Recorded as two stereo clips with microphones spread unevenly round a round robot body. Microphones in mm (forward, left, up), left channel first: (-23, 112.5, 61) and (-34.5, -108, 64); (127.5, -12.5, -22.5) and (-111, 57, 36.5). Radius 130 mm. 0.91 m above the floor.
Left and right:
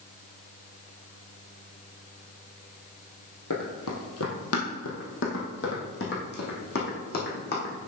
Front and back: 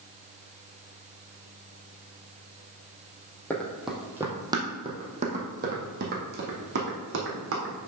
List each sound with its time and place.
3.5 s running footsteps: 75° left, 1.4 m; by 7.9 s 135° left, 3 m